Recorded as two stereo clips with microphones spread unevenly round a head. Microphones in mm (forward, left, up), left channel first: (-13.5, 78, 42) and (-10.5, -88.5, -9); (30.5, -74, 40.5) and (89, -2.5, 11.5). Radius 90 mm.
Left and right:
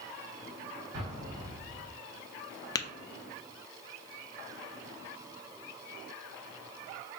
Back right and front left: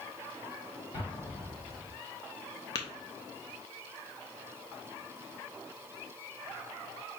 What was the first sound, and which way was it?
An explosion, 95° right.